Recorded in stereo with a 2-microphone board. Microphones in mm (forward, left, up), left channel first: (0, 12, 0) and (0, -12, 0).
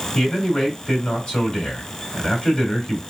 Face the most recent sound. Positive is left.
turn(degrees=30)  # may be behind; listen again after turning